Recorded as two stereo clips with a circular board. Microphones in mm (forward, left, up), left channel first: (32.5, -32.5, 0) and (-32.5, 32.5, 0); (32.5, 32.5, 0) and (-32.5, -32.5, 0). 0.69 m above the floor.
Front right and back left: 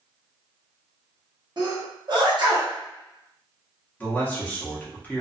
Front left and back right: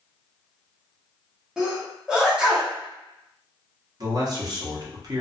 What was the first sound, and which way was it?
A sneeze, 145° left.